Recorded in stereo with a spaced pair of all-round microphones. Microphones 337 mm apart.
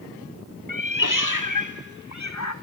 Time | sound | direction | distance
0.7 | a cat meowing | 70° left (ahead or behind) | 1.0 m